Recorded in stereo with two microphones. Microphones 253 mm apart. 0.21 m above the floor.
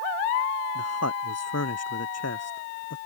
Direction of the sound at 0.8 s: 75° left (ahead or behind).